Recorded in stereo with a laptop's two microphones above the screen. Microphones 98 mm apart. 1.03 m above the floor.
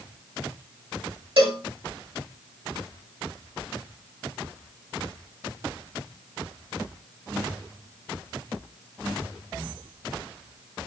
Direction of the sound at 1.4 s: 65° right (ahead or behind).